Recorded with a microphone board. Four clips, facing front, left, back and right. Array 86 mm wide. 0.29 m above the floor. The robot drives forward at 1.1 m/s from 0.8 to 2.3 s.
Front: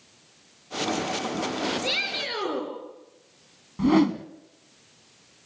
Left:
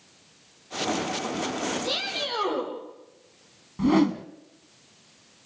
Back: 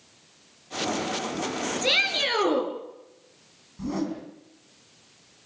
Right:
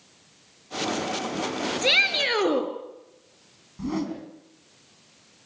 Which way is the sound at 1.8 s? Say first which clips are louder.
Right 5 dB, back 4 dB; 105° right.